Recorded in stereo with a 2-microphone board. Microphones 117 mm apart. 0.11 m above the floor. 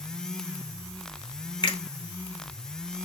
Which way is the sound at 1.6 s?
40° left (ahead or behind).